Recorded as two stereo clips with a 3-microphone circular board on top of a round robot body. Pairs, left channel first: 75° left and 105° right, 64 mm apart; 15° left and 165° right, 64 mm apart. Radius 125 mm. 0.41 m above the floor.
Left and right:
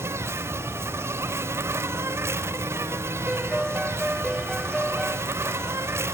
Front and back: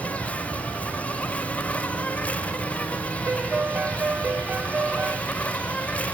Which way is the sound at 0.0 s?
55° right.